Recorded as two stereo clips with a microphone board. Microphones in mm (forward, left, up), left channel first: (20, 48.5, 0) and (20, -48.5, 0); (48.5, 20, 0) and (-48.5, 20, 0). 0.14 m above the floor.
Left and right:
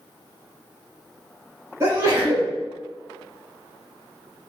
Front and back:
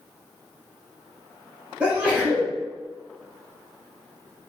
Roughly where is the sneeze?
Behind right.